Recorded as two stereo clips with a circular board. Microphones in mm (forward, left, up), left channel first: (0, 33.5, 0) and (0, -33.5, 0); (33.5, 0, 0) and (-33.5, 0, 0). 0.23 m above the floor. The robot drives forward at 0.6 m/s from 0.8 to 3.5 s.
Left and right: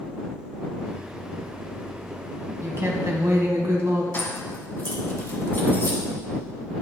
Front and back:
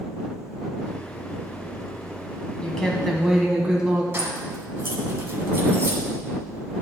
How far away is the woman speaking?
About 1.3 m.